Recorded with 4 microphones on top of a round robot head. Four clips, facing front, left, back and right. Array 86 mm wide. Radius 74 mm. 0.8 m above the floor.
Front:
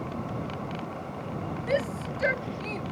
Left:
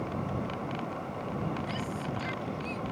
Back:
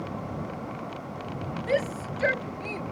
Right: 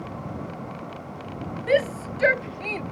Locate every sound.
1.7 s a shout: 95° right; by 2.8 s 90° right